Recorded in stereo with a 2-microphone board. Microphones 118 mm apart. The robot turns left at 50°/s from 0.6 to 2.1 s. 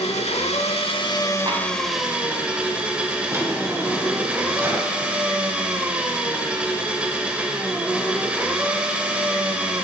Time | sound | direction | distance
0.0 | an engine running | 65° left | 0.8 m
1.5 | tapping | 45° right (ahead or behind) | 1.6 m
3.3 | a drawer | 20° right (ahead or behind) | 1.4 m